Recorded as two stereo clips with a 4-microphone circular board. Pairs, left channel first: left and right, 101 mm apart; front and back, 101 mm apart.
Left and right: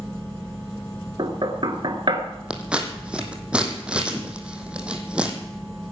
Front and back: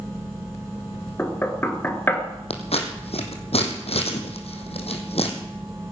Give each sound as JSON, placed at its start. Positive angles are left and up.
{"t": 1.2, "sound": "knocking", "azimuth_deg": -65, "distance_m": 1.8}
{"t": 2.5, "sound": "scissors", "azimuth_deg": -10, "distance_m": 2.5}